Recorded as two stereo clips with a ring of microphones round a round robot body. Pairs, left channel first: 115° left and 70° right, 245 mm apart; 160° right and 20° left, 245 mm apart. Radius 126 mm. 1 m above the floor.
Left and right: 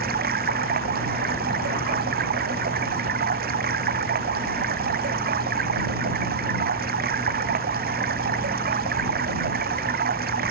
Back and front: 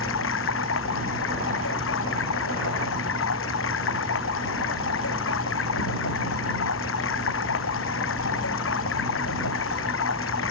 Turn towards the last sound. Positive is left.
turn(degrees=-120)